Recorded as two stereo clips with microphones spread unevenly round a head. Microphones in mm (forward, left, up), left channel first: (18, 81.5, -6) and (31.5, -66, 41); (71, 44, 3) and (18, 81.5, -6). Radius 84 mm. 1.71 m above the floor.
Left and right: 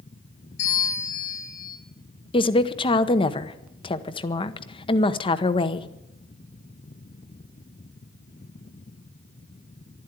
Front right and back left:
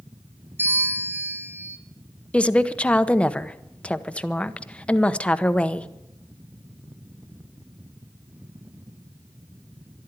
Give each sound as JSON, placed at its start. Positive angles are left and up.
{"t": 0.6, "sound": "a bell", "azimuth_deg": 85, "distance_m": 3.0}
{"t": 2.3, "sound": "a woman speaking", "azimuth_deg": 30, "distance_m": 0.9}